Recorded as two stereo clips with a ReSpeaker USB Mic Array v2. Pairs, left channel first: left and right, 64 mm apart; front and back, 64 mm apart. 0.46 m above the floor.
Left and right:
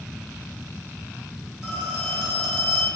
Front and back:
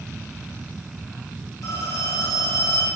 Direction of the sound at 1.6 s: 10° right.